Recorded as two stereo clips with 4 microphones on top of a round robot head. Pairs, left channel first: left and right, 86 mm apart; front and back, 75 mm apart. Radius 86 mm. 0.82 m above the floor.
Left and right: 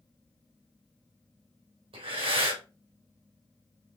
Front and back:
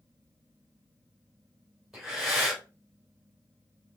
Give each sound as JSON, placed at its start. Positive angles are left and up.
{"t": 1.9, "sound": "breathing", "azimuth_deg": -90, "distance_m": 3.5}